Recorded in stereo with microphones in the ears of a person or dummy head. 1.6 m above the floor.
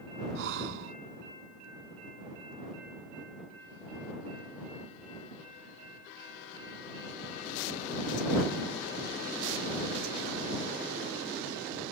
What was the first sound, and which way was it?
Breathing, 70° right (ahead or behind).